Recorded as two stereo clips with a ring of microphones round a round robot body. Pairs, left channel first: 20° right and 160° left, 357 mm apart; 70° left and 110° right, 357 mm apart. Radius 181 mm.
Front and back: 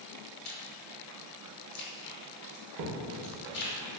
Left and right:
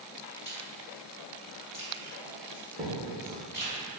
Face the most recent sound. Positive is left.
turn(degrees=180)